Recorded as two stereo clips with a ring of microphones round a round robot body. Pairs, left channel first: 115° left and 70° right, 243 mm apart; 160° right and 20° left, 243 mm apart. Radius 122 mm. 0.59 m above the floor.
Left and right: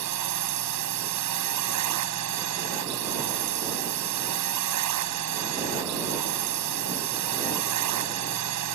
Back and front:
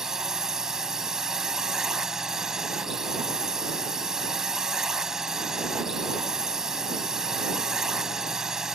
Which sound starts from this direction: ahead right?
A drone, at 0.0 s.